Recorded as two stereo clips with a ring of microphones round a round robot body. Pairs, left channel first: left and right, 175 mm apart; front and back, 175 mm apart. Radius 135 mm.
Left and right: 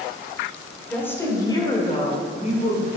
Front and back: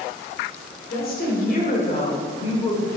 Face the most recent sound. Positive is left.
turn(degrees=60)